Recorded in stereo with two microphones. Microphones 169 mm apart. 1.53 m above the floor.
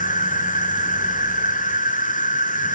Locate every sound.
0.0 s an insect: 50° left (ahead or behind), 0.7 m